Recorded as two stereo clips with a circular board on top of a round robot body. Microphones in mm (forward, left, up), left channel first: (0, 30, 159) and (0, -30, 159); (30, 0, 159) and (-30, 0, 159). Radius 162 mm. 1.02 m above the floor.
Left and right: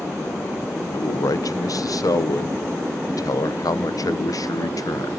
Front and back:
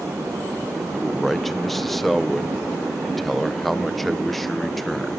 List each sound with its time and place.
0.9 s a man speaking: 90° left, 0.6 m